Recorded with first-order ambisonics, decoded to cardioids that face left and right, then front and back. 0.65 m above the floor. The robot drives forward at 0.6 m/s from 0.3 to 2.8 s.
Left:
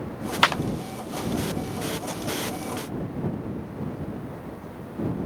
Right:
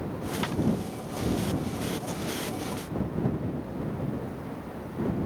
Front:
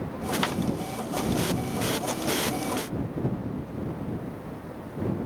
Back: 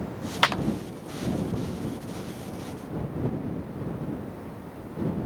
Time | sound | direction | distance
0.4 | a clap | 120° left | ?